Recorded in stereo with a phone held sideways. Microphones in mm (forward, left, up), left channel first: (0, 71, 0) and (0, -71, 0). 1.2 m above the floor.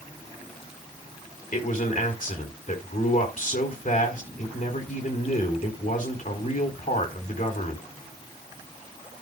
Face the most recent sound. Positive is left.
turn(degrees=70)  # may be behind; listen again after turning